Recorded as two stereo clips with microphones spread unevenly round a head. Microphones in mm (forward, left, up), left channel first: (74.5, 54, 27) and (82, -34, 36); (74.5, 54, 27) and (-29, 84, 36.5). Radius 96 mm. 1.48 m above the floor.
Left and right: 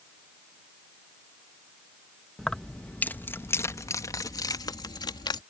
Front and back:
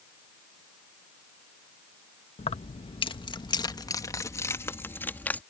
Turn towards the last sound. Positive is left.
turn(degrees=60)